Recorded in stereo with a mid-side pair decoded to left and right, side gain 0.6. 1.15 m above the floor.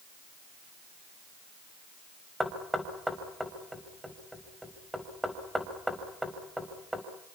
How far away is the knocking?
About 4.5 m.